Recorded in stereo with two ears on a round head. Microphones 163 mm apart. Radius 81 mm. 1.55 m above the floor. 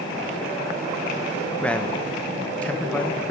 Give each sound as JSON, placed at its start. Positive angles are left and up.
{"t": 1.6, "sound": "a man speaking", "side_deg": 5, "distance_m": 1.6}